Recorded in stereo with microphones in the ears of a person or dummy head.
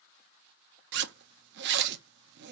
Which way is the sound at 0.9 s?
60° right (ahead or behind).